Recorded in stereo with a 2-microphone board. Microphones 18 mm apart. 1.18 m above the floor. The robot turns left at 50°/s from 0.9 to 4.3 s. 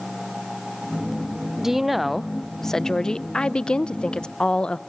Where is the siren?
I don't hear a siren.